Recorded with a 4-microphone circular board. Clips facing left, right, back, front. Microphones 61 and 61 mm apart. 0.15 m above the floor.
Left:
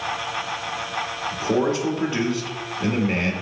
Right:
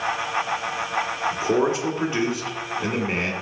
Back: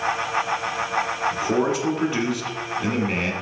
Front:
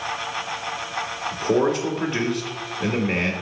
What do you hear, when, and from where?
1.3 s a man speaking: 95° right, 1.1 m